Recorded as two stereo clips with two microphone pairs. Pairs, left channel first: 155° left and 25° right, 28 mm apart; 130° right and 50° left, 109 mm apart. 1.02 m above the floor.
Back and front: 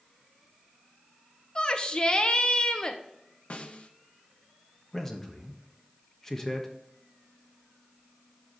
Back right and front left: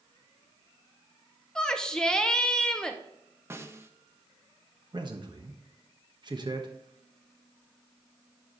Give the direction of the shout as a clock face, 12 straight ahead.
7 o'clock.